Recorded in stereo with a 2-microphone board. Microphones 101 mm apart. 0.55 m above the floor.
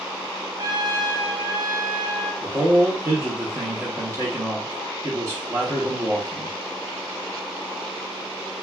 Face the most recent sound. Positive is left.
turn(degrees=-25)  # may be behind; listen again after turning